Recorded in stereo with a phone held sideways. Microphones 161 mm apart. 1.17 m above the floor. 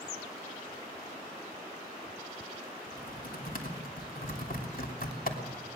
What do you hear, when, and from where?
2.9 s typing on a keyboard: 65° left (ahead or behind), 3 m